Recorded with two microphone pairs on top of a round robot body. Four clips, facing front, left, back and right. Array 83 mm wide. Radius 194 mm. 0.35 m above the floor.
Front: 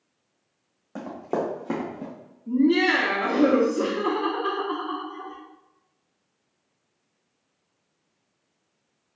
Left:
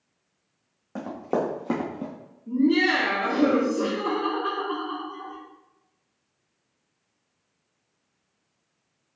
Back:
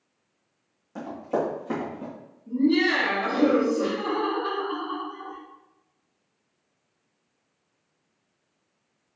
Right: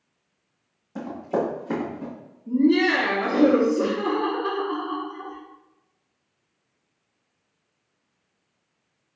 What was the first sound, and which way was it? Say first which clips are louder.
Running footsteps: right 1 dB, even; 55° left.